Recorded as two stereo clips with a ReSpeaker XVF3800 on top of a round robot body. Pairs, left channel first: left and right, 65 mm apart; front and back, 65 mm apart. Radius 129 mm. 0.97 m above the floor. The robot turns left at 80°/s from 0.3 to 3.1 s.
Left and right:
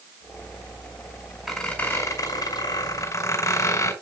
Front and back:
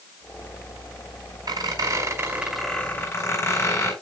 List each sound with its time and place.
1.5 s a squeak: 175° right, 5 m; by 3.9 s 55° left, 5 m